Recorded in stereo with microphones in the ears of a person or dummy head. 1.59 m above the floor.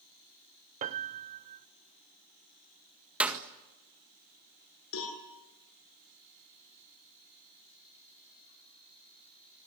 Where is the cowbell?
75° left (ahead or behind), 7.5 m.